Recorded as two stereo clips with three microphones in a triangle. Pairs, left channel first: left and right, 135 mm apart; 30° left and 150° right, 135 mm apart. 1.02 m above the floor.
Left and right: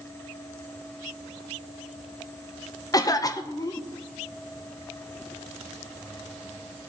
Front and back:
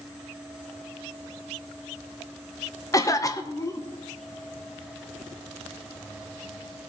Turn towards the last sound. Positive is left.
turn(degrees=65)